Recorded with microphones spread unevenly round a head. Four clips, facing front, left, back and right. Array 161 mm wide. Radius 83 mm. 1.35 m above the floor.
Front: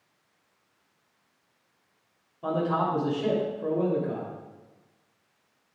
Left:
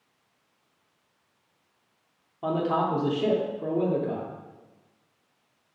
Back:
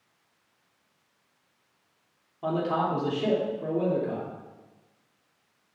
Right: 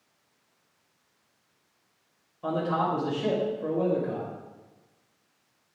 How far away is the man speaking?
About 3 m.